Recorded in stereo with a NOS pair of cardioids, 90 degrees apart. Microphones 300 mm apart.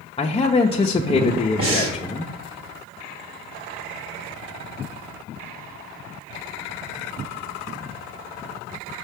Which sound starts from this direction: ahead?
A man speaking, at 0.2 s.